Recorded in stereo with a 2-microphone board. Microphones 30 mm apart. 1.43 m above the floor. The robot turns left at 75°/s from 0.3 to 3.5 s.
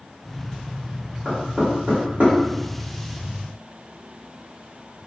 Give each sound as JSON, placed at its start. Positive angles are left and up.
{"t": 1.2, "sound": "knocking", "side_deg": -15, "distance_m": 1.4}